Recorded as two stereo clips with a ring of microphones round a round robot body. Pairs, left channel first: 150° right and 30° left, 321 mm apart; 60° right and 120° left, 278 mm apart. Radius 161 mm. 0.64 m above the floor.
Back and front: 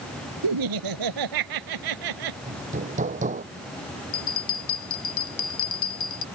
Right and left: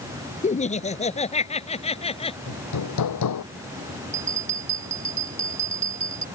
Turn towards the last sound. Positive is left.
turn(degrees=-175)